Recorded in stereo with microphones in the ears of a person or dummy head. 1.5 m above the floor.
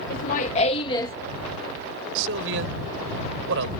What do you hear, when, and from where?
0.1 s laughter: 55° left (ahead or behind); by 1.1 s 20° left (ahead or behind)
2.1 s a man speaking: 75° right (ahead or behind)